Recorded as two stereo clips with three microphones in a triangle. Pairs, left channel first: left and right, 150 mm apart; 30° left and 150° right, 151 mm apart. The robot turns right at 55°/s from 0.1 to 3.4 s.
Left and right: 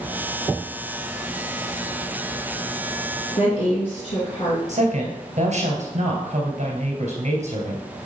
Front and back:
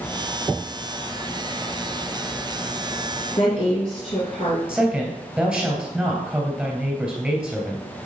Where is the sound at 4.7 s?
70° right, 3 m.